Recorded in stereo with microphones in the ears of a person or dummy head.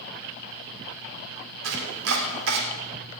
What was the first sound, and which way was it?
Chopping, 80° right.